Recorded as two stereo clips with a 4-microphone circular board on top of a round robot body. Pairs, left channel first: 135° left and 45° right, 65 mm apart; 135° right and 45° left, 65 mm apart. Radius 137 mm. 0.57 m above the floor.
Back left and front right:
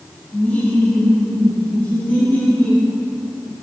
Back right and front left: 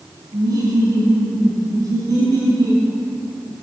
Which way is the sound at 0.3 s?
70° left.